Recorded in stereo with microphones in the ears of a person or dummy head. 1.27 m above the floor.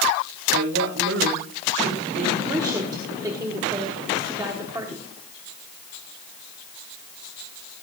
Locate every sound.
0.5 s a woman speaking: 75° right (ahead or behind), 2.5 m
2.4 s a woman speaking: 20° right (ahead or behind), 1.3 m